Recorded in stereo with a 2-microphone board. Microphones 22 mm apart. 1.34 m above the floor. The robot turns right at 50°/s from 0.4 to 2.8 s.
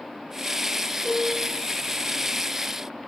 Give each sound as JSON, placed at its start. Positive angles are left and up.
{"t": 1.0, "sound": "a piano", "side_deg": -45, "distance_m": 2.5}